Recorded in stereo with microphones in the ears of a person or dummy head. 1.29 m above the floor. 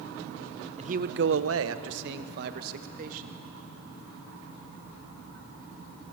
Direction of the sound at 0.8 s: 35° right (ahead or behind).